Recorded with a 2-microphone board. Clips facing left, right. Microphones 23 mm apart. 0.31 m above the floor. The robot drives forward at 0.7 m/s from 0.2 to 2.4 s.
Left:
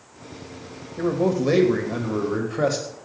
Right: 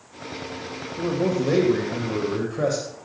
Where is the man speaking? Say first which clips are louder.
Left 2 dB; 20° left (ahead or behind), 1.4 m.